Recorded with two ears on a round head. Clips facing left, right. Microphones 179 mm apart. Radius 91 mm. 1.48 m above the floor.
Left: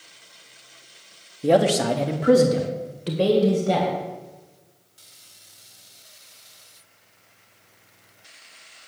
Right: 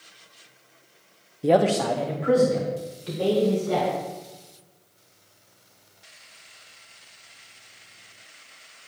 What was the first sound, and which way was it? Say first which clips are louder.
A man speaking: left 1 dB; 5° right (ahead or behind).